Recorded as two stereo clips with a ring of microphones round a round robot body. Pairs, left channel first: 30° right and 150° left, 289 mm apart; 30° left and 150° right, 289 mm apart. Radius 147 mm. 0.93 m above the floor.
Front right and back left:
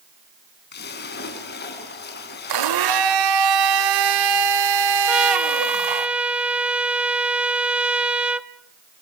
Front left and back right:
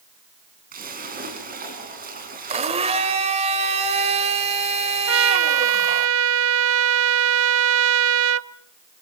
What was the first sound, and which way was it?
A splash, 90° right.